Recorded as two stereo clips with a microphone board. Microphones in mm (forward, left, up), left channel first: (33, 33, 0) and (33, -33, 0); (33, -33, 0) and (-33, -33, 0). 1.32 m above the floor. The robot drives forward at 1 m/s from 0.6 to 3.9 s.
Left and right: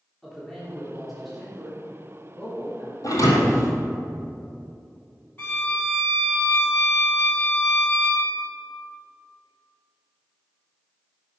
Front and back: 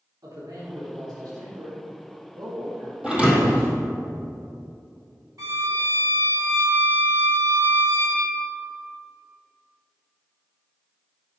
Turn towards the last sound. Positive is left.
turn(degrees=150)